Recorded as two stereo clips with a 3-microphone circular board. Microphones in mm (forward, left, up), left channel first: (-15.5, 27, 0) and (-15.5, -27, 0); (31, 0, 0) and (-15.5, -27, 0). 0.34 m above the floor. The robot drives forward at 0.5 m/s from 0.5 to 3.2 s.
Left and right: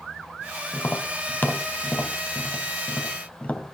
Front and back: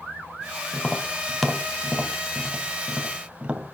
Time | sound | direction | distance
0.7 | tapping | 95° left | 1.6 m